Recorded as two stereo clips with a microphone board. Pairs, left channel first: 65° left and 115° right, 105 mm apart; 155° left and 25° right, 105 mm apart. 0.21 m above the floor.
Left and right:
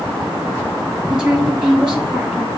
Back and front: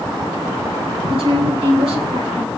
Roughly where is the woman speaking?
Ahead right.